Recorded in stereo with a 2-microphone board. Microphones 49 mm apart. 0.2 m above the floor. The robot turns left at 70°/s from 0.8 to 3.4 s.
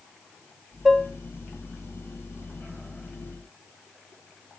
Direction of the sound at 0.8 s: Centre (ahead or behind).